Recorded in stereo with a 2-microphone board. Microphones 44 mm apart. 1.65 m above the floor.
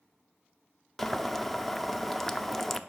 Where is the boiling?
5° left (ahead or behind), 0.6 m.